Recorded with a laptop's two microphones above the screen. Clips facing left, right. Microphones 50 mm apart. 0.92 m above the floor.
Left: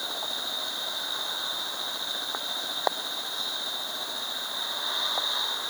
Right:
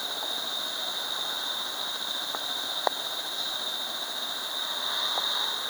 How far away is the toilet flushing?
I don't hear a toilet flushing.